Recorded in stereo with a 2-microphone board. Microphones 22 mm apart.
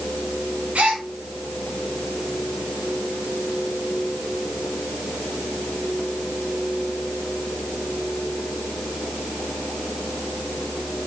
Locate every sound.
0.8 s a gasp: 75° right (ahead or behind), 2.5 m